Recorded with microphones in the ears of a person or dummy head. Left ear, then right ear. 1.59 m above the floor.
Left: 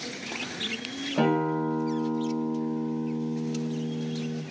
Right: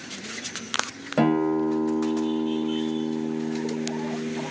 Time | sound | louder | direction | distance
1.2 | a guitar | right 3 dB | 85° right | 1.1 m